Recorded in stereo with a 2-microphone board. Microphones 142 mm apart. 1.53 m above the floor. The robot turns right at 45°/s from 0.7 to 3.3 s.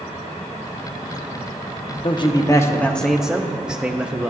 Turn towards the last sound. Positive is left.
turn(degrees=-170)